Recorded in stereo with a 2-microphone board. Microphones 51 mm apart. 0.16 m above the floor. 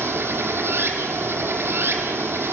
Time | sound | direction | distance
0.0 | running water | 65° right (ahead or behind) | 0.8 m